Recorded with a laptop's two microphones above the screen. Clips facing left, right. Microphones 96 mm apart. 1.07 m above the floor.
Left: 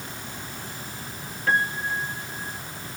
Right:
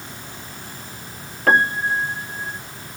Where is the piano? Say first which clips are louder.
Right 7 dB; 75° right (ahead or behind).